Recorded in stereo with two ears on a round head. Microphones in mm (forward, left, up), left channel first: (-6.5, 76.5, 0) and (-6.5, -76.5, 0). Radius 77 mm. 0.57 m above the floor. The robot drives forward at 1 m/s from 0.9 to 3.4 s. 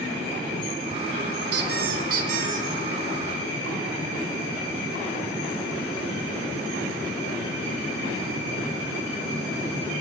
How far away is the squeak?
About 2.5 m.